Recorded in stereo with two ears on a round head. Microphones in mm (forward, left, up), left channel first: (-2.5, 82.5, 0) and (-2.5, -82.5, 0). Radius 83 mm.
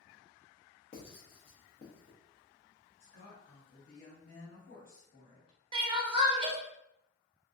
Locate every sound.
0.9 s writing: 35° left (ahead or behind), 0.8 m
3.0 s a woman speaking: 55° left (ahead or behind), 1.3 m
5.7 s crying: 25° right (ahead or behind), 0.6 m